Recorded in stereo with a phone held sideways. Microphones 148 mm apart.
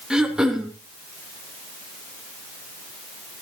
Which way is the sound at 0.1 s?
5° right (ahead or behind).